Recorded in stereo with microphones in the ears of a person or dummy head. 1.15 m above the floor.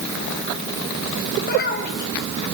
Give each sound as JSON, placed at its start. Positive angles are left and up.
{"t": 1.4, "sound": "a child speaking", "side_deg": 55, "distance_m": 4.0}